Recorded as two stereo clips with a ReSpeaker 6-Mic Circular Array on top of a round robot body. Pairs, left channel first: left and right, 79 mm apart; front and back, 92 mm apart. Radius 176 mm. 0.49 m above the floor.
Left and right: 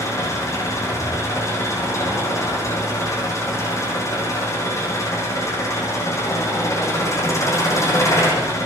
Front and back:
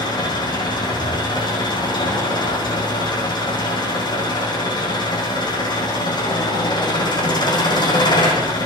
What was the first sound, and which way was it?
An engine running, 40° left.